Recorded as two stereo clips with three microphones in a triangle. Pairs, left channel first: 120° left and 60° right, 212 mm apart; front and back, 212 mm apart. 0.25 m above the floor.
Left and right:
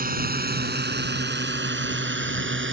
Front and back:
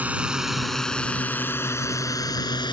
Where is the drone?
100° right; by 2.7 s 65° right.